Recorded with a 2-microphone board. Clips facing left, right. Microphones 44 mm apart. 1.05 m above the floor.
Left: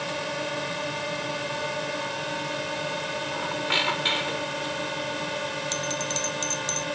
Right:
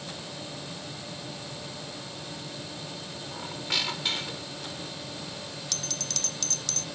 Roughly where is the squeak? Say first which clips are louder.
Left 5 dB; left.